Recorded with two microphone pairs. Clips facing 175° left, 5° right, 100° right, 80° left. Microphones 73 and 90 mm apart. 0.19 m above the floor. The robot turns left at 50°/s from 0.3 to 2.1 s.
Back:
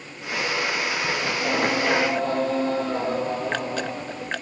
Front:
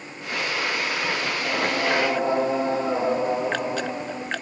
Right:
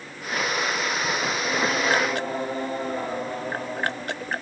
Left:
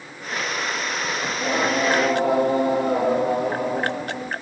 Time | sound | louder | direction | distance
1.3 | singing | back 2 dB, left 2 dB | 110° left | 2.5 m